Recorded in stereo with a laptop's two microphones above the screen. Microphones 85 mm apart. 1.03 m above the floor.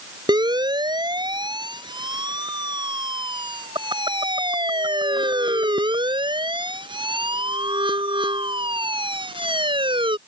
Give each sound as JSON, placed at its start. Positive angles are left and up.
{"t": 0.3, "sound": "a siren", "side_deg": -55}